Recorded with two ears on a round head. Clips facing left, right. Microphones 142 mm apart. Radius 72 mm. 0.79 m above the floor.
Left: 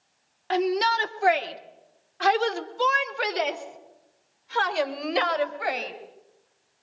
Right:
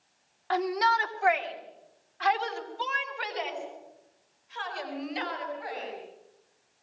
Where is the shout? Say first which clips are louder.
Left 3 dB; 25° left (ahead or behind), 1.9 m; by 5.9 s 75° left (ahead or behind), 4.5 m.